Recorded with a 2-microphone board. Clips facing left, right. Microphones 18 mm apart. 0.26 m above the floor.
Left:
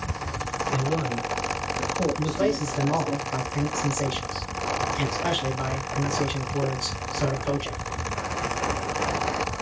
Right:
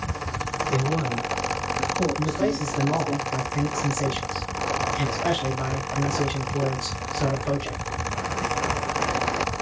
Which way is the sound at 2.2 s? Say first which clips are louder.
Even; 10° left (ahead or behind).